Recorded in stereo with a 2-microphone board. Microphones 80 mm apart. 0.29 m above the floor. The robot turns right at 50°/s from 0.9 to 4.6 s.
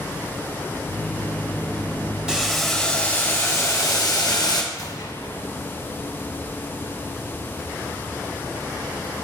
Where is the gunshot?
50° left (ahead or behind), 1.7 m.